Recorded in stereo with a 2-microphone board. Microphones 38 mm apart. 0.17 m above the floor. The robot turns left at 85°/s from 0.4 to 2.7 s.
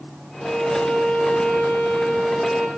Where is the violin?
Straight behind, 2.5 m; by 2.7 s 15° right, 2.5 m.